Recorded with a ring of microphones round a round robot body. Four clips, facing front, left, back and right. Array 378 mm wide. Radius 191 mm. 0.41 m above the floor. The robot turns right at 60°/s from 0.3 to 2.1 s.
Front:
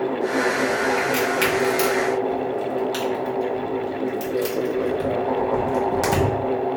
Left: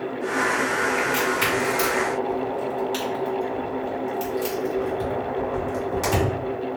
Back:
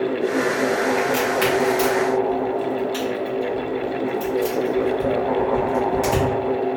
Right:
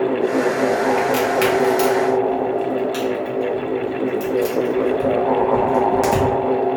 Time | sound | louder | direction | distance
1.0 | a crack | right 6 dB, back 1 dB | 85° right | 1.7 m